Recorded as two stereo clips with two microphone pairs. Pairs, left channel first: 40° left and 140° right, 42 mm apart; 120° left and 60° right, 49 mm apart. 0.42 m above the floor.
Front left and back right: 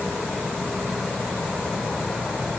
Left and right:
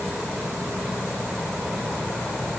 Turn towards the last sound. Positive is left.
No sound to turn to.